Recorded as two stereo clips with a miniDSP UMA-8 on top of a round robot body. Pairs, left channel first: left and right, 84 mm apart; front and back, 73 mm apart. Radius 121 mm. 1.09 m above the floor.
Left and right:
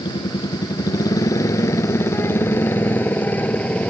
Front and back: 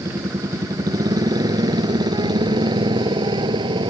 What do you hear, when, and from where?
0.0 s a motorcycle: 125° left; by 3.9 s 165° left